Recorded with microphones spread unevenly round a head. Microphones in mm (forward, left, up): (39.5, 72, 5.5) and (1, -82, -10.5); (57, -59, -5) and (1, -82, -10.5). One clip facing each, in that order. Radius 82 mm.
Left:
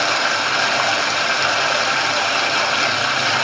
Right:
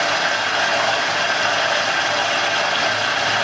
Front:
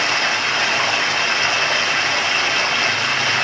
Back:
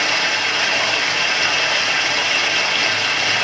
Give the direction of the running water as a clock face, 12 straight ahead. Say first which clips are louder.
Even, even; 9 o'clock.